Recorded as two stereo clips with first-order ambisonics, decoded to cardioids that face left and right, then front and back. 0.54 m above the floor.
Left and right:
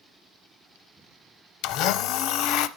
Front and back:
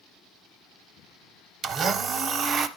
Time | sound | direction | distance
1.6 | a blender | 120° left | 0.6 m